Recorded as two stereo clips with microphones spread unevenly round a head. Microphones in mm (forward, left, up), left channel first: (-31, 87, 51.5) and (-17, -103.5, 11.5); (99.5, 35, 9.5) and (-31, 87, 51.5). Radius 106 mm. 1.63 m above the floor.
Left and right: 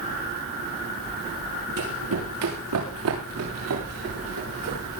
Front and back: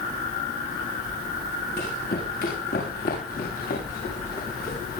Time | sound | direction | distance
1.8 | running footsteps | 70° right | 7 m